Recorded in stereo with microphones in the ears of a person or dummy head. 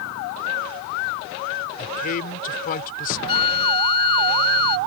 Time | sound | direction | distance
1.8 | a man speaking | 50° left (ahead or behind) | ?
3.3 | a flute | 30° left (ahead or behind) | ?